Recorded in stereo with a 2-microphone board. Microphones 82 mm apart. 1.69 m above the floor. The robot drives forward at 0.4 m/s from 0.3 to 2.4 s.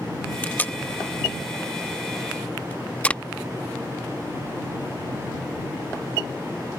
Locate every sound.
0.4 s tape being pulled: 20° left (ahead or behind); by 3.2 s 15° left (ahead or behind)